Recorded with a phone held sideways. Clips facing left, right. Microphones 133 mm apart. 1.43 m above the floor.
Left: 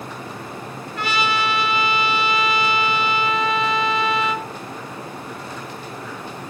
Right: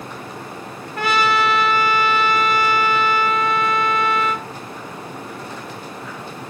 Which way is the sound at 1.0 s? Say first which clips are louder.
Right 4 dB; 50° right (ahead or behind).